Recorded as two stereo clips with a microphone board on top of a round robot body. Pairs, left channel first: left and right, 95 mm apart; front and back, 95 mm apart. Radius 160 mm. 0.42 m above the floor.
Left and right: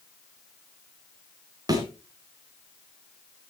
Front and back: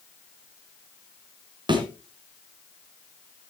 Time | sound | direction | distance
1.7 | a thud | 140° right | 3 m